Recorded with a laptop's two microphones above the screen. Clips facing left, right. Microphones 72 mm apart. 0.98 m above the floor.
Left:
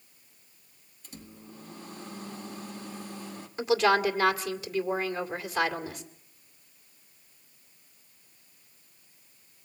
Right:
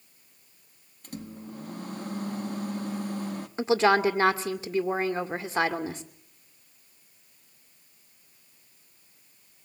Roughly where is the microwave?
Right.